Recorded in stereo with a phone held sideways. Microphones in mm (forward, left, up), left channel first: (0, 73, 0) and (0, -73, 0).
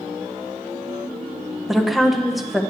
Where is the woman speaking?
Centre (ahead or behind), 0.7 m.